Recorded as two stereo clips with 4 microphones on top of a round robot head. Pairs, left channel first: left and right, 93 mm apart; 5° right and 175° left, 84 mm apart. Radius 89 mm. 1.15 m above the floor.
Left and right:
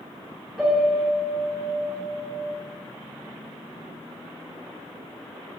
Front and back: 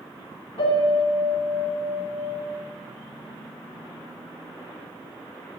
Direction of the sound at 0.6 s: 5° right.